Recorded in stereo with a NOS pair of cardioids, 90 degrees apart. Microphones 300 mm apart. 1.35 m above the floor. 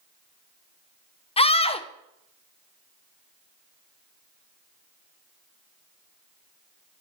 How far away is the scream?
About 0.9 m.